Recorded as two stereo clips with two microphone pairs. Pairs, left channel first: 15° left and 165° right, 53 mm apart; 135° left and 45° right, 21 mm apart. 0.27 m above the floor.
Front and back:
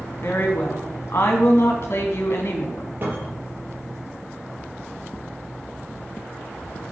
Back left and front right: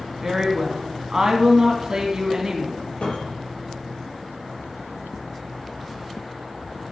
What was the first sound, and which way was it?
A woman speaking, 15° left.